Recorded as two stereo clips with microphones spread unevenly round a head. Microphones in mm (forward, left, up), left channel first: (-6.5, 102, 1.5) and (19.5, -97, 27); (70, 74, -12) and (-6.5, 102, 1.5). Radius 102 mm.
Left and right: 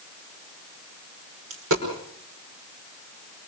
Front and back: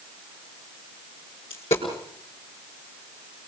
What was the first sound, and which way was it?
A dropped coin, 60° right.